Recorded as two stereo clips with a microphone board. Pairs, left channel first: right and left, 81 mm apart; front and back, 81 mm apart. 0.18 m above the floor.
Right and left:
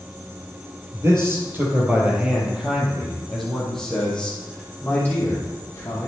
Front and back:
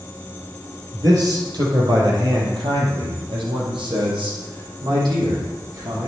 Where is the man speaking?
145° left, 4 m; by 6.1 s 150° right, 6 m.